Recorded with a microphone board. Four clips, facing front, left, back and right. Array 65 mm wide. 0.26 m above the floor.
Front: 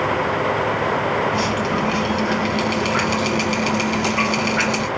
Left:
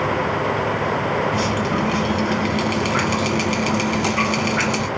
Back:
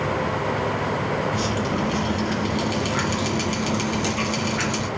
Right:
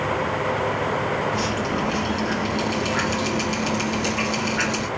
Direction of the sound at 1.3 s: 50° left.